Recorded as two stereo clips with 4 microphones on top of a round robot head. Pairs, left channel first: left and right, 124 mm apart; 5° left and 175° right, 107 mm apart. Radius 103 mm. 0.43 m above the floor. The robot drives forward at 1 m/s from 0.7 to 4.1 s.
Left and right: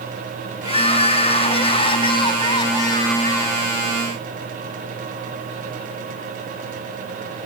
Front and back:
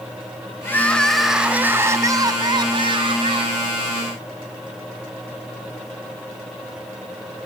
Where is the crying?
70° left, 1.7 m; by 3.7 s 155° left, 3 m.